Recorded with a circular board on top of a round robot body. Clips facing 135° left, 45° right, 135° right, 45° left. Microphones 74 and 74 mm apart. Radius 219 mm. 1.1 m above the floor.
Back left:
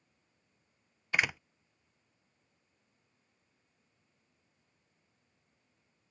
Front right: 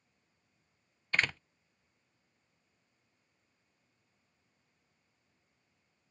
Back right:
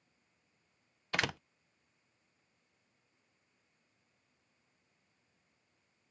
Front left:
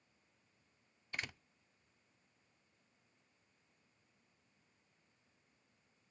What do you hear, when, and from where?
1.1 s a door slam: 145° right